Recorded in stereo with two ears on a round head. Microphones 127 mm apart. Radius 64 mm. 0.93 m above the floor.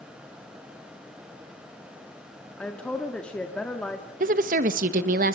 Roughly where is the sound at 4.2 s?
Right.